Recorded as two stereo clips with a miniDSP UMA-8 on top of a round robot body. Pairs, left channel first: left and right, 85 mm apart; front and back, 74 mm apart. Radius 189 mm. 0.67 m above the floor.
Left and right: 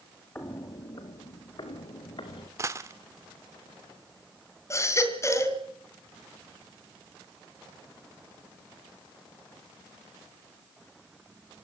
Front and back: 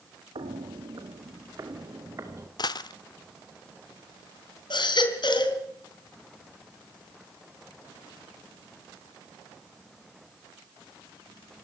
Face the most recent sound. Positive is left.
turn(degrees=30)